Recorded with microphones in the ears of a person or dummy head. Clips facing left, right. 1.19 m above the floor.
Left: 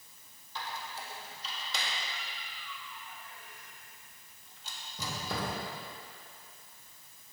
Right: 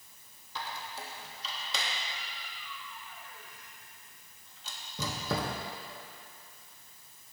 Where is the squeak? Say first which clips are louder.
Right 1 dB; 70° right (ahead or behind), 1.1 m.